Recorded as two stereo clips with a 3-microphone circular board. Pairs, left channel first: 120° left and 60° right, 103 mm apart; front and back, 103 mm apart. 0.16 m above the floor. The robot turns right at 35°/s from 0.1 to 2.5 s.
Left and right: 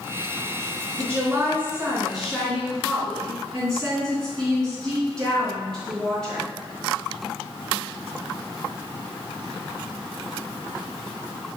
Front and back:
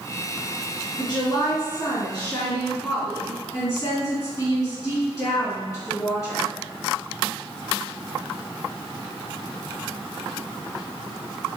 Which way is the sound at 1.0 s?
15° right.